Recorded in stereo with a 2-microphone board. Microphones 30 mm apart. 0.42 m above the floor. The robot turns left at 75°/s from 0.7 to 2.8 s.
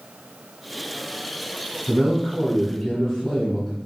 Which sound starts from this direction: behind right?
A man speaking, at 1.9 s.